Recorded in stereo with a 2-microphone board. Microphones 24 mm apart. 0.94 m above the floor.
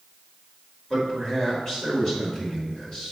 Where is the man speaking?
35° left (ahead or behind), 3 m.